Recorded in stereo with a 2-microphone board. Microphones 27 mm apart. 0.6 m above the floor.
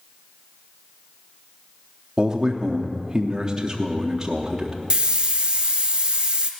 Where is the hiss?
35° right (ahead or behind), 0.9 m.